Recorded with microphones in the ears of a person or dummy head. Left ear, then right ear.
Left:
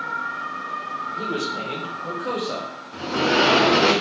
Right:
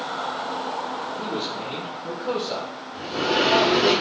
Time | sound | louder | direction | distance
1.1 | a man speaking | left 2 dB | 70° left (ahead or behind) | 1.9 m
2.9 | a sliding door | left 3 dB | 60° left (ahead or behind) | 0.9 m